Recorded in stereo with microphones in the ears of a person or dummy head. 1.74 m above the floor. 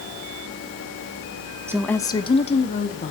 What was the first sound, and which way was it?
A woman speaking, 10° right (ahead or behind).